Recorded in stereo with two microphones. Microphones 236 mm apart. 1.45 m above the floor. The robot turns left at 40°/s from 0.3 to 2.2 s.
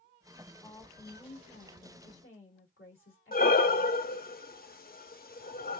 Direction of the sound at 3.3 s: 40° left (ahead or behind).